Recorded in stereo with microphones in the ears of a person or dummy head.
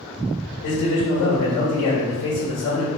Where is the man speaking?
60° left (ahead or behind), 1.7 m.